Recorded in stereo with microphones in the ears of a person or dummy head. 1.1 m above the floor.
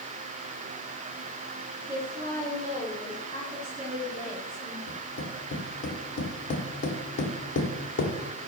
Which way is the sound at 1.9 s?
35° right (ahead or behind).